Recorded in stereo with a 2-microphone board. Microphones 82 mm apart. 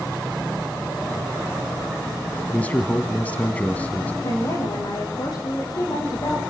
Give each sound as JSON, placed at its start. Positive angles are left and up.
{"t": 2.5, "sound": "a man speaking", "side_deg": 20, "distance_m": 1.1}
{"t": 4.2, "sound": "a woman speaking", "side_deg": 55, "distance_m": 7.0}